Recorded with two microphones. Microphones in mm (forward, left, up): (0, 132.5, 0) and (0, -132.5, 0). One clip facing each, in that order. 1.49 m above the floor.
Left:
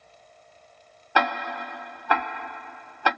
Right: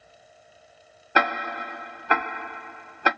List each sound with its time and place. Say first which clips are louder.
1.1 s ticking: right 1 dB; 20° right (ahead or behind), 0.7 m